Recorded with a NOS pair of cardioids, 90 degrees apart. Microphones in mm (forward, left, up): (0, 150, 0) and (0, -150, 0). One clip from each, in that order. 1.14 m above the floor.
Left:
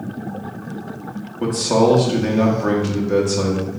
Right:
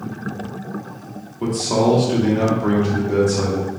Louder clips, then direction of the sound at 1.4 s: Left 2 dB; 15° left.